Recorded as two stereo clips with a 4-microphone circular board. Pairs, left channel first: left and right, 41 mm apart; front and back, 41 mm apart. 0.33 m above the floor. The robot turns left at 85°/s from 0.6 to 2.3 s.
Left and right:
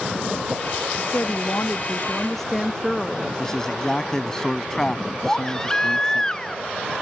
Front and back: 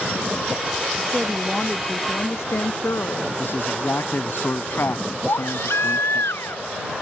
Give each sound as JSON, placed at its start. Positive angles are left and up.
{"t": 1.0, "sound": "a woman speaking", "azimuth_deg": 120}
{"t": 3.4, "sound": "a man speaking", "azimuth_deg": 15}
{"t": 5.3, "sound": "a baby crying", "azimuth_deg": 15}